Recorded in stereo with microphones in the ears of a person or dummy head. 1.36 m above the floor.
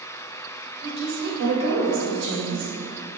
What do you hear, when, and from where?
0.8 s a woman speaking: 60° right (ahead or behind), 1.0 m